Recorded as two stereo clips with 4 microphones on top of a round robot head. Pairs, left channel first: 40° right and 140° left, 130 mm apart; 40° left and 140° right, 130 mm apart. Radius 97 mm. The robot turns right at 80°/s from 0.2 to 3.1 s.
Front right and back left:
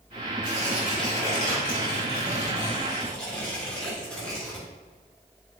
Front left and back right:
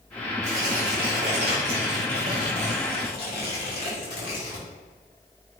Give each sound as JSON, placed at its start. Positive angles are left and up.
{"t": 0.4, "sound": "tearing paper", "azimuth_deg": -175, "distance_m": 1.3}